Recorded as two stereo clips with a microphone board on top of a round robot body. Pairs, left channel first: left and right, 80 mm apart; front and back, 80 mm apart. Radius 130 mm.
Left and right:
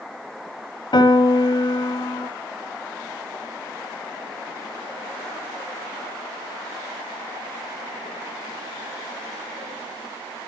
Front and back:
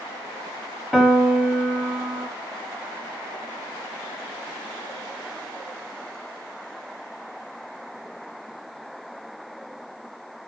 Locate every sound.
0.9 s a piano: 95° left, 0.9 m